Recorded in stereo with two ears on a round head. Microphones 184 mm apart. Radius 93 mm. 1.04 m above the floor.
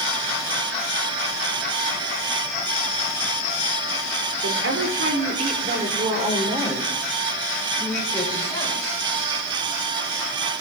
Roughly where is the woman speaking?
Right.